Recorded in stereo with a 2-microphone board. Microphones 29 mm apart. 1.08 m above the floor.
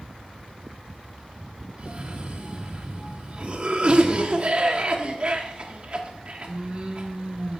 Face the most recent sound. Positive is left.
turn(degrees=-35)  # may be behind; listen again after turning